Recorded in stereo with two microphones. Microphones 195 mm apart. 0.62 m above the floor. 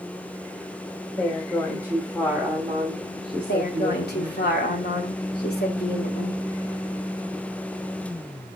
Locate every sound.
1.2 s a woman speaking: 20° left (ahead or behind), 1.6 m; by 4.4 s 45° right (ahead or behind), 1.6 m
3.5 s a woman speaking: 55° left (ahead or behind), 1.8 m